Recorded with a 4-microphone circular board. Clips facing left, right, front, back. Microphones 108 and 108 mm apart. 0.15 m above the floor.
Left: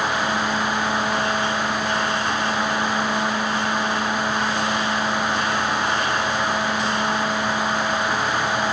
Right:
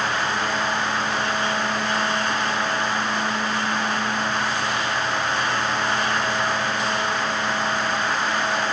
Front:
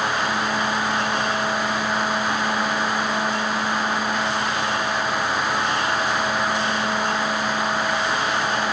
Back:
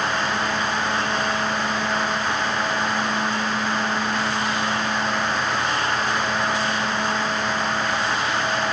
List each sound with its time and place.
Only background noise.